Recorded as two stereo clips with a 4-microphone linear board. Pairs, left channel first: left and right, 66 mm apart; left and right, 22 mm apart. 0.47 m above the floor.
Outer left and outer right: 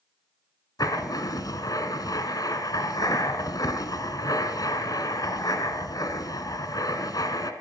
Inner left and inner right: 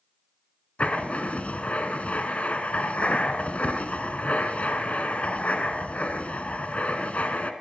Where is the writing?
80° left, 1.4 m.